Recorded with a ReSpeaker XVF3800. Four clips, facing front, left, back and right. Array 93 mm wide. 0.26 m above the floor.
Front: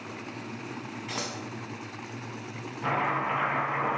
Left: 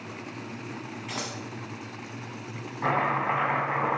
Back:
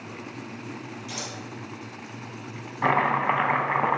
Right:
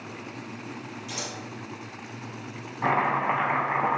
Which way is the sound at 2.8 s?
175° right.